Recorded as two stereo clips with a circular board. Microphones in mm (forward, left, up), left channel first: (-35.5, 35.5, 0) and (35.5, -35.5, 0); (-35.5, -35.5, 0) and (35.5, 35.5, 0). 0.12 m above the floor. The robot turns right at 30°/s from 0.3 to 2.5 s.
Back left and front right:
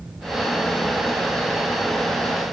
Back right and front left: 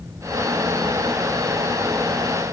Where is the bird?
No bird in this recording.